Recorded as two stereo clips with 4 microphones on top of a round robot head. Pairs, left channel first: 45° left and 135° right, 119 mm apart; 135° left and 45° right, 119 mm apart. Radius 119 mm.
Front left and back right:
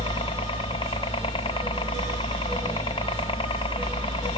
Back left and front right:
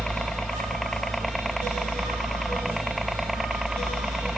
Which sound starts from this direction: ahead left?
A helicopter, at 0.0 s.